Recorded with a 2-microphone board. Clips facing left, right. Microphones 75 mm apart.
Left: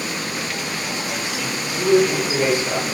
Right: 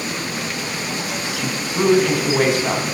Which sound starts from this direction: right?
A woman speaking, at 1.4 s.